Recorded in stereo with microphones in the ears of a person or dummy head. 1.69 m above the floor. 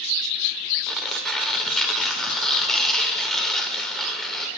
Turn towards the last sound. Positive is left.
turn(degrees=0)  # may be behind; listen again after turning